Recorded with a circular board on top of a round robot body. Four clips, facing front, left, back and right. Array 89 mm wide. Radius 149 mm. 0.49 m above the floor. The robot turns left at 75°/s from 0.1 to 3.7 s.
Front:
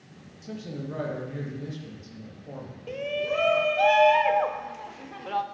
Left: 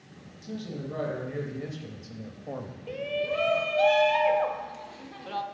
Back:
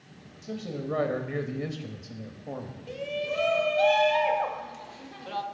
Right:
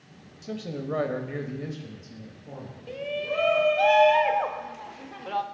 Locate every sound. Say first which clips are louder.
0.4 s a man speaking: right 3 dB, back 2 dB; 75° right, 0.9 m; by 2.8 s 110° left, 0.9 m
2.9 s a shout: left 1 dB, front 4 dB; 20° left, 0.7 m; by 5.4 s 40° right, 0.7 m